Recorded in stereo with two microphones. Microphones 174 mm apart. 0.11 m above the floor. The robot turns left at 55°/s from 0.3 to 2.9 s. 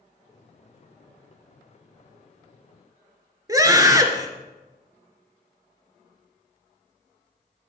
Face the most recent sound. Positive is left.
turn(degrees=-20)  # may be behind; listen again after turning